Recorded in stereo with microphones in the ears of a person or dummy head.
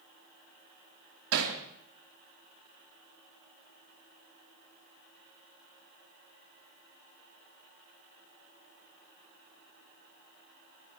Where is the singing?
I don't hear singing.